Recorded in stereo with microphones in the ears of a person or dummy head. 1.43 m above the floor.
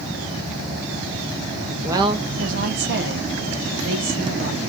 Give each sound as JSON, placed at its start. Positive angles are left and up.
{"t": 1.8, "sound": "a woman speaking", "side_deg": -15, "distance_m": 0.7}